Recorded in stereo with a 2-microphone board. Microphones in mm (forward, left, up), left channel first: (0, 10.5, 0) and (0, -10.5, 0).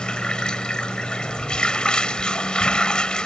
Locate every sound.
0.0 s running water: 40° left (ahead or behind)